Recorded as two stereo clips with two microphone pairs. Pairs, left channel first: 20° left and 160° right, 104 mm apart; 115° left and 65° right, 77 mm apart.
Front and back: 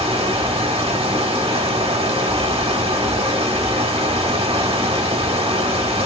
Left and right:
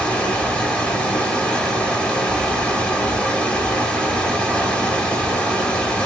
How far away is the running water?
About 1.0 m.